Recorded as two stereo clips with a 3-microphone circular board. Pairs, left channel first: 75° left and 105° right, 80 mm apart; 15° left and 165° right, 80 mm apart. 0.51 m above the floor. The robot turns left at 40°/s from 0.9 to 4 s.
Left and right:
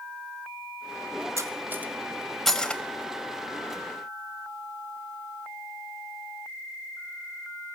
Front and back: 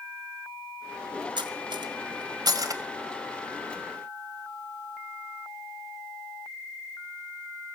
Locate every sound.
1.4 s cutlery clinking: 155° right, 1.5 m; by 2.8 s 145° left, 1.5 m